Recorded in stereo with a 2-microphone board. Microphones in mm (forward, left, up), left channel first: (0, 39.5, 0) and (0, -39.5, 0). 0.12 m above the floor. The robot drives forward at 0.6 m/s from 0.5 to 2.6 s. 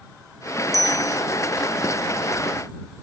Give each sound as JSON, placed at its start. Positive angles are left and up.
{"t": 0.7, "sound": "a bicycle bell", "side_deg": -45}